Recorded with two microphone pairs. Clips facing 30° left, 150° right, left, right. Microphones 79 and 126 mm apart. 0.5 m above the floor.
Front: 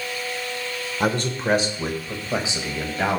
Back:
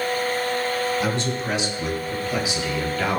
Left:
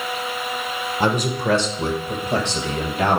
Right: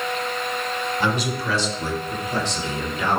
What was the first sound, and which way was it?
A man speaking, 50° left.